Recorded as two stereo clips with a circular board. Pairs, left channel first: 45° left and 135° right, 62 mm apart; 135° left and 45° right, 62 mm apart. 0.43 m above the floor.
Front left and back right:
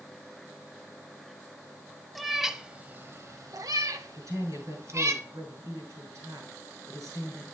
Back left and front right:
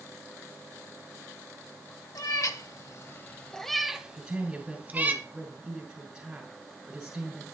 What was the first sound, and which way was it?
A cat meowing, 135° left.